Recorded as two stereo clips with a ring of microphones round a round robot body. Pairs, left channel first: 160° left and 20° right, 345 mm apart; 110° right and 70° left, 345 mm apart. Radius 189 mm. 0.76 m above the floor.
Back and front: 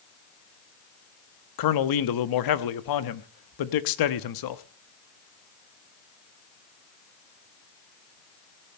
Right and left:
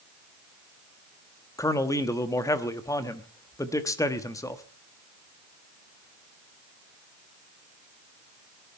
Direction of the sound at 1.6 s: 165° left.